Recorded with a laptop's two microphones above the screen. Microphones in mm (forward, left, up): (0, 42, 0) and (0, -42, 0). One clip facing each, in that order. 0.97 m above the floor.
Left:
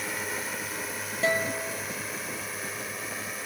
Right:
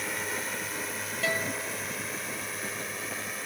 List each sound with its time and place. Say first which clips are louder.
0.0 s a drone: even; 5° left (ahead or behind)
1.2 s a guitar: left 5 dB; 25° left (ahead or behind)